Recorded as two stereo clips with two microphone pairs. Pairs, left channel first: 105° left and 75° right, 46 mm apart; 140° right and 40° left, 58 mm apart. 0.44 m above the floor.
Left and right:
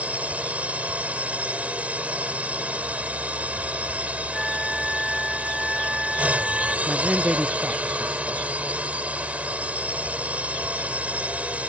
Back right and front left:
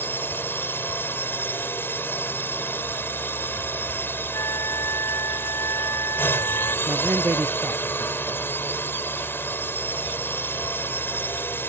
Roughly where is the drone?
Behind right.